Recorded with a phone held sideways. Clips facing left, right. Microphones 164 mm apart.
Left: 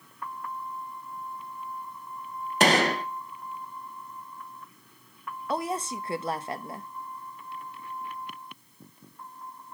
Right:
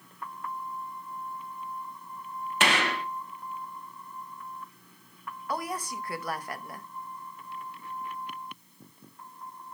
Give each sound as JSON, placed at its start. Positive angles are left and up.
{"t": 2.6, "sound": "a gunshot", "side_deg": 40, "distance_m": 0.8}
{"t": 5.5, "sound": "a woman speaking", "side_deg": 25, "distance_m": 0.8}